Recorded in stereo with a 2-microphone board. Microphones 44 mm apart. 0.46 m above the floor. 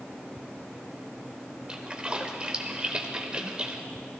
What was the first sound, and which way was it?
A splash, 20° right (ahead or behind).